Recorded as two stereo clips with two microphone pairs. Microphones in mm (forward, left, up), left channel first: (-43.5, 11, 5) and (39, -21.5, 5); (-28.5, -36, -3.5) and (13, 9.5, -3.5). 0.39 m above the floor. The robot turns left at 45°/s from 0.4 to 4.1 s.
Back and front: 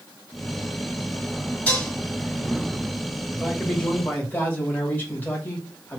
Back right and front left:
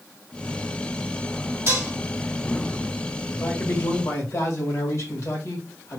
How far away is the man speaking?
About 2 m.